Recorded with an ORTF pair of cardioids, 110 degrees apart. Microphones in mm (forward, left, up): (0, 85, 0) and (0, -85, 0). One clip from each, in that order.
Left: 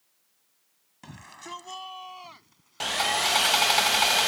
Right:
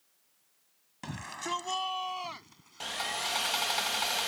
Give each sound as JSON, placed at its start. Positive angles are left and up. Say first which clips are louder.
{"t": 1.0, "sound": "a shout", "louder": "right 5 dB", "azimuth_deg": -40}
{"t": 2.8, "sound": "sawing", "louder": "left 9 dB", "azimuth_deg": 35}